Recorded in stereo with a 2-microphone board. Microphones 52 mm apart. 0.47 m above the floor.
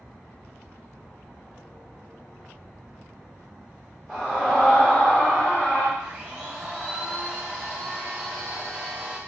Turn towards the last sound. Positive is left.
turn(degrees=5)  # may be behind; listen again after turning